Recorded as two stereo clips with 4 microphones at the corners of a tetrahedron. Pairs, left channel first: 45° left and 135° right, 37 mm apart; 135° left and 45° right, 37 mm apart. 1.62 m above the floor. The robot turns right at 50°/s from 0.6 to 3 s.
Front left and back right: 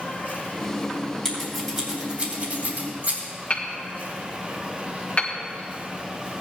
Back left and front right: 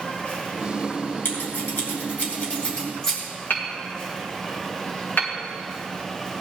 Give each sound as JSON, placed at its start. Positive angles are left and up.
{"t": 0.0, "sound": "an insect", "azimuth_deg": 75, "distance_m": 2.5}
{"t": 1.2, "sound": "scissors", "azimuth_deg": 120, "distance_m": 3.0}
{"t": 3.5, "sound": "hammering", "azimuth_deg": 100, "distance_m": 1.7}